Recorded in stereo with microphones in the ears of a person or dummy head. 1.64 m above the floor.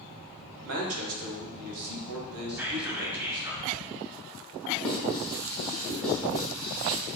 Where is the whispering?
5° right (ahead or behind), 0.7 m.